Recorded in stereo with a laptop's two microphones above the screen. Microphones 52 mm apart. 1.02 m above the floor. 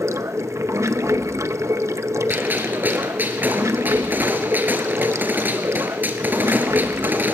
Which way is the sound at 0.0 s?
75° right (ahead or behind).